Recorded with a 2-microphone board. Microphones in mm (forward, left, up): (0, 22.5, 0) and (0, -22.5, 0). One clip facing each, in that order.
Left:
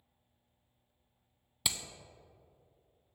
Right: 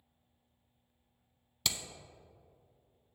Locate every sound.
1.6 s hammering: 10° left (ahead or behind), 0.5 m